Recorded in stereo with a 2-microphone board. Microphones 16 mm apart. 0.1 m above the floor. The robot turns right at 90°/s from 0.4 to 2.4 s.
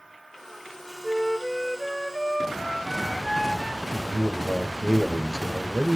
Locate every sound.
1.0 s a flute: 95° right, 2 m; by 3.8 s 25° left, 2 m
3.9 s a man speaking: 30° right (ahead or behind), 1.7 m